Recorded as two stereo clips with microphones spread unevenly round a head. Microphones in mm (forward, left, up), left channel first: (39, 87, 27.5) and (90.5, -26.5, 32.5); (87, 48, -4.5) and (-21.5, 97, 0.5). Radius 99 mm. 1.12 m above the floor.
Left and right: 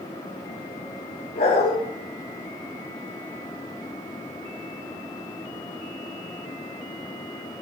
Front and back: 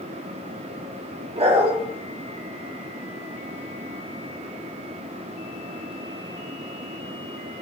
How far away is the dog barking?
About 5.5 m.